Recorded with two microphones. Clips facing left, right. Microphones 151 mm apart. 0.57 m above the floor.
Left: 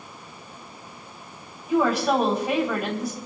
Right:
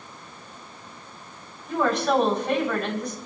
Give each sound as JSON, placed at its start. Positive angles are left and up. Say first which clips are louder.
{"t": 1.7, "sound": "a woman speaking", "louder": "left 2 dB", "side_deg": 10, "distance_m": 3.5}